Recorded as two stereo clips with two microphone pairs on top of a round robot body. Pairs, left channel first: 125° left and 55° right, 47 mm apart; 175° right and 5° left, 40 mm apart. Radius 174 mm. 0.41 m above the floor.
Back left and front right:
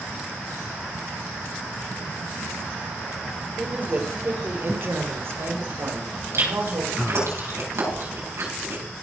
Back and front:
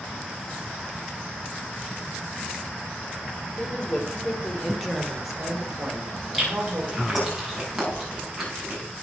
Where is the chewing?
80° right, 5 m.